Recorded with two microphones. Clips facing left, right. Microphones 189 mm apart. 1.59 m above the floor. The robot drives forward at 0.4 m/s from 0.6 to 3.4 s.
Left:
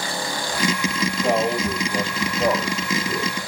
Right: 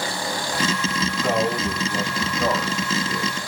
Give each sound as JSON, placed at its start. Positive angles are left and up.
{"t": 1.2, "sound": "a man speaking", "side_deg": 20, "distance_m": 8.0}